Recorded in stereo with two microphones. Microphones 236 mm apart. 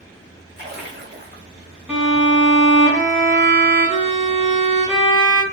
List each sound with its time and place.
0.6 s a splash: 45° right (ahead or behind), 1.0 m
1.9 s a violin: 10° right (ahead or behind), 1.0 m